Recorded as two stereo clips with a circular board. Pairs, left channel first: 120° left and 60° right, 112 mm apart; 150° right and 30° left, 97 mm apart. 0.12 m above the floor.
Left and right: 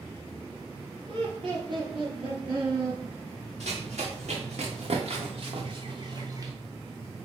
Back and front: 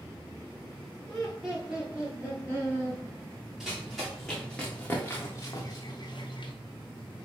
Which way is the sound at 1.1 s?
65° right.